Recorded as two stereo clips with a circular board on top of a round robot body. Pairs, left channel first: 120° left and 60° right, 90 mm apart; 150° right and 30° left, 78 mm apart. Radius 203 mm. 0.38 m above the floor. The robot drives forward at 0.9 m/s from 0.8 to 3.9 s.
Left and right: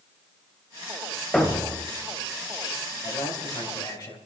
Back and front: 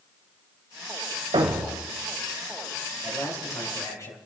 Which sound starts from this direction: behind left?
A man speaking, at 3.0 s.